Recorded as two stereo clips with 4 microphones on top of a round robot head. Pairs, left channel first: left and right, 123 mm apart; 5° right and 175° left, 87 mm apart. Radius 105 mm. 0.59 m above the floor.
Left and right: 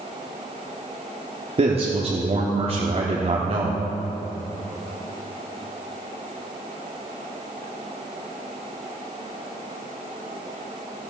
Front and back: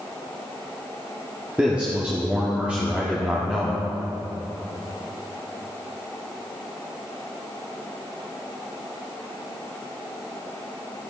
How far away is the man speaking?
About 1.5 m.